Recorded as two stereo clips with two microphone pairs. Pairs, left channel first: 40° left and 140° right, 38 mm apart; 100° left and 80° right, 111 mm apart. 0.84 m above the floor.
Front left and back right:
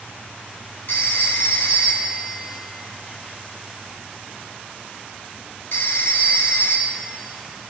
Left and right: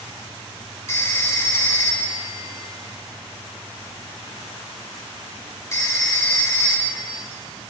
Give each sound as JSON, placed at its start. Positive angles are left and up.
{"t": 0.9, "sound": "a phone ringing", "azimuth_deg": 35, "distance_m": 1.5}